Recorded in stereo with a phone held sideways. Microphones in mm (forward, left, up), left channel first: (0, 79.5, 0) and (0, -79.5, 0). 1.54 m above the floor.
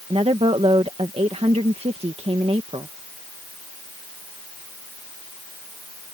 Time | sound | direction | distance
0.1 | a woman speaking | 40° right (ahead or behind) | ?